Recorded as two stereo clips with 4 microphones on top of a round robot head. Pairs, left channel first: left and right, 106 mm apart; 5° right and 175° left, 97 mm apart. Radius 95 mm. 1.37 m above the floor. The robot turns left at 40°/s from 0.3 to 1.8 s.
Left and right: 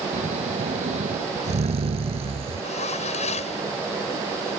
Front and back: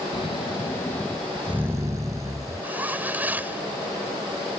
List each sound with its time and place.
0.1 s snoring: 55° right; by 2.7 s 115° right
2.6 s a zipper: 105° left